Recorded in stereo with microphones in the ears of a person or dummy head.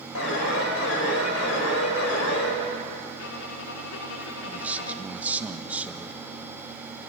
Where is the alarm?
90° left, 5 m.